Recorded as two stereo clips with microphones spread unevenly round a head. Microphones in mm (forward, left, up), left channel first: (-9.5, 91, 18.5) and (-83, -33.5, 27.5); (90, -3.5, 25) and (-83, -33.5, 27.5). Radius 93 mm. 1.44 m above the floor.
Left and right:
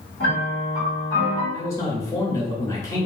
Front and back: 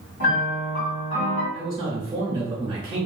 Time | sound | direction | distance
0.2 | a piano | 5° right | 1.7 m
1.5 | a man speaking | 130° left | 0.9 m